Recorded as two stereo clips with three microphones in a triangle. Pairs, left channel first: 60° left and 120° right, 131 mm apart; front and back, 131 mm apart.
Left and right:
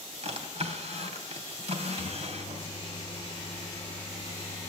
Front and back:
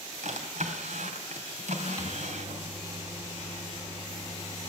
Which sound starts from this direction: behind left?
A microwave, at 2.0 s.